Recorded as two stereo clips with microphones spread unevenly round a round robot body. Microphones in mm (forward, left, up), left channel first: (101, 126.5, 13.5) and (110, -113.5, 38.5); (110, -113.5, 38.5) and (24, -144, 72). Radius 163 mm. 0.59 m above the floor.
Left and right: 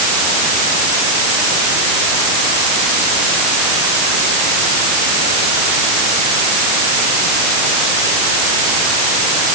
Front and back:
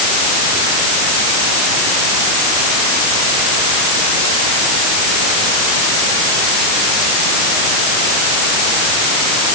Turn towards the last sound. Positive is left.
No sound to turn to.